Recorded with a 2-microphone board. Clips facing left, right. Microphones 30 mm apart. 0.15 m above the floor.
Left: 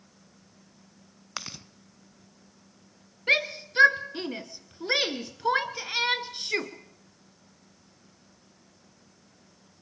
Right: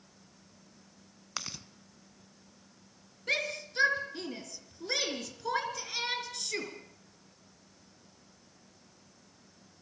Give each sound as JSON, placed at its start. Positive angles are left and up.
{"t": 1.4, "sound": "chewing", "side_deg": 10, "distance_m": 1.0}
{"t": 3.3, "sound": "a shout", "side_deg": 35, "distance_m": 2.5}